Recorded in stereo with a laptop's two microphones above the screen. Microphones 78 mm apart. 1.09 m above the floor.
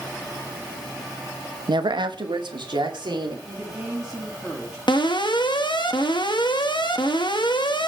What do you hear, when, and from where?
1.7 s a woman speaking: 70° right (ahead or behind), 0.7 m; by 3.4 s 75° right (ahead or behind), 3 m
3.5 s a woman speaking: 10° right (ahead or behind), 5.5 m
4.9 s an alarm: 80° left, 1.4 m